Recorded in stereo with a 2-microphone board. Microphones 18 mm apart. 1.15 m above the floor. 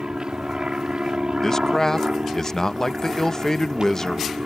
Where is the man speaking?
25° left (ahead or behind).